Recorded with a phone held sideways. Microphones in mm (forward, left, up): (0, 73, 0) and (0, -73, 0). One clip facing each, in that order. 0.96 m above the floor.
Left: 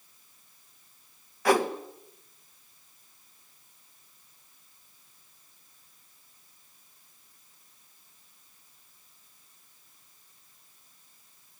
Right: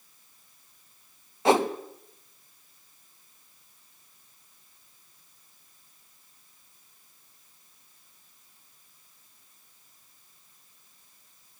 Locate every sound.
1.4 s a whoosh: 25° right (ahead or behind), 1.5 m